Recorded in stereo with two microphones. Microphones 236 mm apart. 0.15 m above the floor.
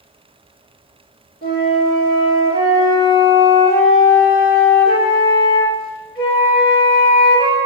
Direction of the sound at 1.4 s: 25° left (ahead or behind).